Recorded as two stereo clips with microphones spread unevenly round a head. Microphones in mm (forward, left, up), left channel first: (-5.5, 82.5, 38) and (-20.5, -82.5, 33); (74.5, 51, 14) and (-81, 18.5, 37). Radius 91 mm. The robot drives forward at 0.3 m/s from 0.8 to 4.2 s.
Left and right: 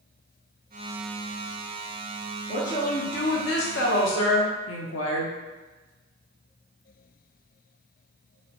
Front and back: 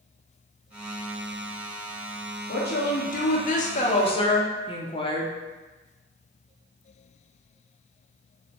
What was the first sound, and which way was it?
A woman speaking, 35° left.